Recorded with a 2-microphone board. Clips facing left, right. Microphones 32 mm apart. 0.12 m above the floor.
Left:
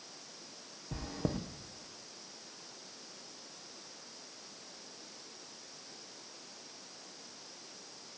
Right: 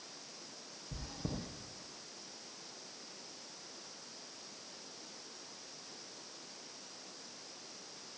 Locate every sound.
0.9 s chewing: 60° left (ahead or behind), 3 m